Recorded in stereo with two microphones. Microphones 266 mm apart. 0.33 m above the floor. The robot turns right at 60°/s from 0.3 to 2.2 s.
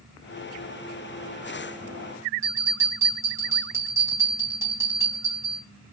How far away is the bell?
About 1.4 m.